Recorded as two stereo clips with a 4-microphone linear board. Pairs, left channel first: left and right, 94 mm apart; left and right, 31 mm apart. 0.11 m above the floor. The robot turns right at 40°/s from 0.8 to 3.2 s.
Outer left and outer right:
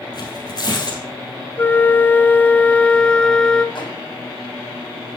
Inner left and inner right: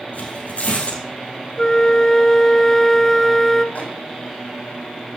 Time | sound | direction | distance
0.1 | tearing paper | 50° left (ahead or behind) | 3 m
1.6 | a flute | 20° left (ahead or behind) | 0.6 m
3.8 | a microwave | 55° left (ahead or behind) | 4.5 m